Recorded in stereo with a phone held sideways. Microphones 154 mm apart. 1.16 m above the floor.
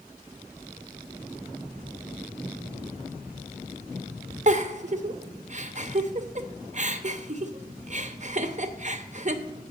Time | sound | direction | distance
4.5 | a giggle | 50° right (ahead or behind) | 0.6 m